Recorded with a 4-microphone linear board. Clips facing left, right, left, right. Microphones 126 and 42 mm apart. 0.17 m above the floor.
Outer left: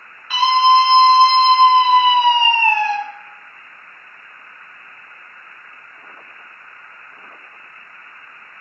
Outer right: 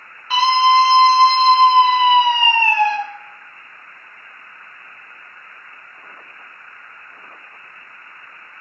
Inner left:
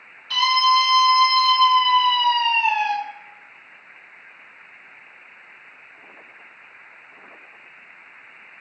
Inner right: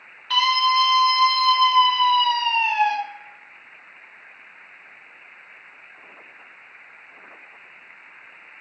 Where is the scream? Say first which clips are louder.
Outer left 1 dB, inner left 1 dB; 30° right (ahead or behind), 1.5 m; by 3.0 s 30° left (ahead or behind), 2 m.